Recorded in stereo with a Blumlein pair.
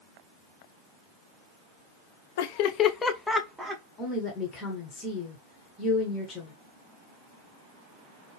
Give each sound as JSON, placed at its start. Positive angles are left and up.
{"t": 2.4, "sound": "laughter", "azimuth_deg": 50, "distance_m": 0.6}
{"t": 4.0, "sound": "a woman speaking", "azimuth_deg": 15, "distance_m": 1.1}